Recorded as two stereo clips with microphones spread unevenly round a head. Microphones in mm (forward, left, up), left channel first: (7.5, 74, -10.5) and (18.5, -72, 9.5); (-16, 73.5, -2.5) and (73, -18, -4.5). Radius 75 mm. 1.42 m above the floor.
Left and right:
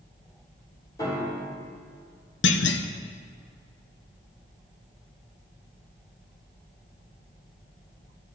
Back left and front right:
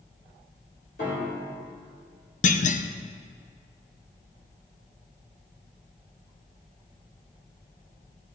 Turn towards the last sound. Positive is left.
turn(degrees=110)